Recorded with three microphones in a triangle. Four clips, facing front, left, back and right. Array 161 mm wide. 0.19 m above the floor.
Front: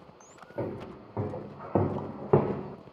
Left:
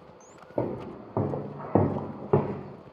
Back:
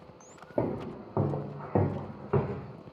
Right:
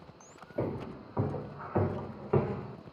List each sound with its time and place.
0.6 s footsteps: 130° left, 1.6 m; by 2.8 s 20° left, 1.1 m